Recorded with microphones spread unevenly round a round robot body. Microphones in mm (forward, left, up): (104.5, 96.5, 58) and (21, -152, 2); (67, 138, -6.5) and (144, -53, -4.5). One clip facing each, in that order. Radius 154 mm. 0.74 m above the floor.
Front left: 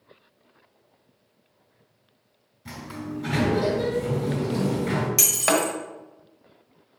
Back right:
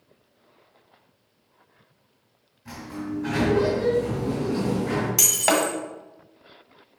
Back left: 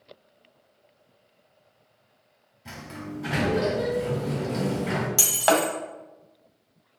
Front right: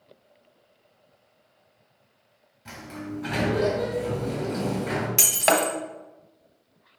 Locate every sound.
2.6 s a sliding door: 35° left, 2.5 m
5.2 s breaking glass: 5° right, 1.5 m